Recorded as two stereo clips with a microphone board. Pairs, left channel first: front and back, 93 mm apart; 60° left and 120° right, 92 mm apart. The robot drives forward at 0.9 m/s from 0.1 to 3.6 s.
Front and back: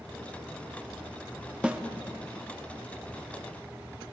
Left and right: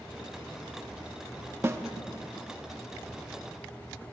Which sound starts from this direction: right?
A snare drum, at 1.6 s.